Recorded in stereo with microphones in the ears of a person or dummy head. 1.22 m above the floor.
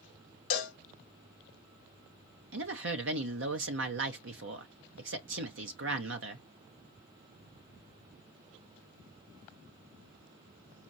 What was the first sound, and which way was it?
A cowbell, 40° left (ahead or behind).